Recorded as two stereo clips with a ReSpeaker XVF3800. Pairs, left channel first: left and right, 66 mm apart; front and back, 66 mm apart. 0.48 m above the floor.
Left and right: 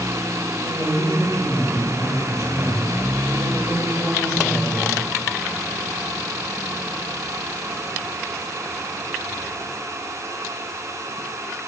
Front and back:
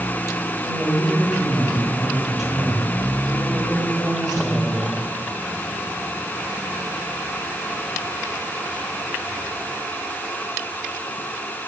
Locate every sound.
0.6 s a woman speaking: 100° left, 2.5 m